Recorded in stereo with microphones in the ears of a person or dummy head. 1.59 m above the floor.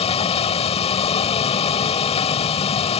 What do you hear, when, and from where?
0.0 s a vehicle: 30° left (ahead or behind)